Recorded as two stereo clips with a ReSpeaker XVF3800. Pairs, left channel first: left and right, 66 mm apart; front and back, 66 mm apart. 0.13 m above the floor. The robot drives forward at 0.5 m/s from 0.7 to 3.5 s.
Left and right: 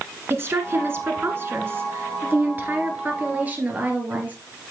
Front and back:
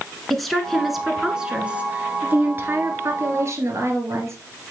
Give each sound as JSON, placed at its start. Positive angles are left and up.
{"t": 0.3, "sound": "a woman speaking", "azimuth_deg": -90, "distance_m": 1.3}